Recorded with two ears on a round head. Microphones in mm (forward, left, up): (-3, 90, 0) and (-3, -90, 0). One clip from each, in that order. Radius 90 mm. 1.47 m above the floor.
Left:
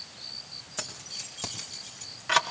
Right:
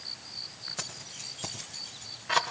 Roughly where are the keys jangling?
Centre.